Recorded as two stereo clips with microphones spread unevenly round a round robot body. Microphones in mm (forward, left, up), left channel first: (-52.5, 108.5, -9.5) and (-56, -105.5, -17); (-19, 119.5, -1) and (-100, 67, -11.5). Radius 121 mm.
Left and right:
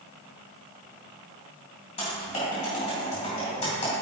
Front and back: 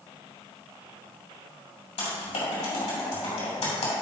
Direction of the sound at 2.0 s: 25° left.